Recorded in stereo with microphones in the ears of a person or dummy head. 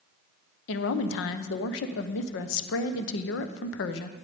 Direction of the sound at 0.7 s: 65° left (ahead or behind).